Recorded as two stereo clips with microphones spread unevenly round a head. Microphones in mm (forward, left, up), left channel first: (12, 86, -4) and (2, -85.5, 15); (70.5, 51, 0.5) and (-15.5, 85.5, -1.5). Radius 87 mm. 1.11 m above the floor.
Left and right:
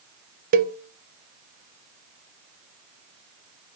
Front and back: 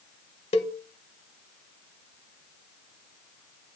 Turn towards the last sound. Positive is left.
turn(degrees=-50)